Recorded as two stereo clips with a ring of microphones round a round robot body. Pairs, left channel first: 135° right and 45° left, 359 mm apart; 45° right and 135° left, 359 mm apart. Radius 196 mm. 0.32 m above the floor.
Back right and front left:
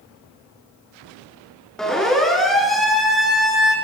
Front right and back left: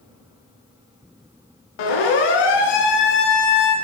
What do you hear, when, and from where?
1.8 s a siren: 45° right, 8 m